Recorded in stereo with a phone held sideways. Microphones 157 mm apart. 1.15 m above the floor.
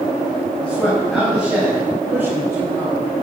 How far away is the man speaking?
About 5.5 m.